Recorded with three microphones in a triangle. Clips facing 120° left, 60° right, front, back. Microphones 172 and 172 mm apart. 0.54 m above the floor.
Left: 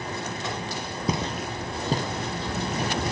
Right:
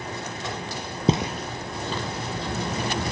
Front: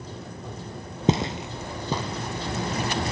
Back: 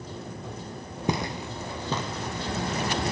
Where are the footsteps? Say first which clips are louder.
Right 5 dB, front 5 dB; 40° right, 0.6 m; by 3.0 s 85° left, 2 m.